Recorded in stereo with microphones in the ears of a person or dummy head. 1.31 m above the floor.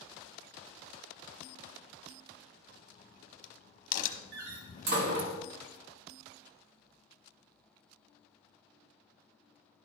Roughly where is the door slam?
Right.